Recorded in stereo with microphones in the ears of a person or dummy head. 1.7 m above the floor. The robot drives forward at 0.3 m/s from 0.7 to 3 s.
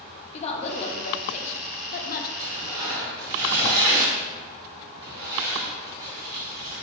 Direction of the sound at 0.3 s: 35° left (ahead or behind).